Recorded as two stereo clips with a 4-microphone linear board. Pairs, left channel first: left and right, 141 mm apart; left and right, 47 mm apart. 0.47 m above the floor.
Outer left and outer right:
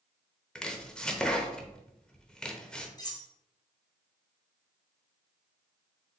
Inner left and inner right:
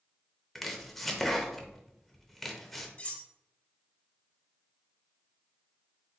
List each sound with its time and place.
0.6 s chopping: 5° left (ahead or behind), 0.6 m
3.0 s cutlery clinking: 30° left (ahead or behind), 0.7 m